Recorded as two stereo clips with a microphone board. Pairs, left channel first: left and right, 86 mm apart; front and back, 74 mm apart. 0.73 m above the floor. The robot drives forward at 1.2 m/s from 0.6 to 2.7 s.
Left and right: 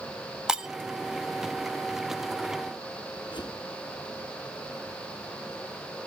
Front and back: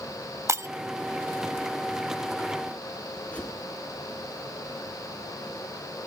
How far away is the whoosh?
About 3 m.